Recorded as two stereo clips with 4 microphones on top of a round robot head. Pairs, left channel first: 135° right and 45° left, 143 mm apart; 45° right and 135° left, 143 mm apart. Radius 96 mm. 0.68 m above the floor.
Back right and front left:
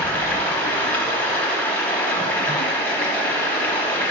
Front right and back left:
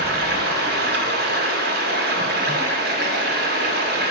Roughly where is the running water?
Behind left.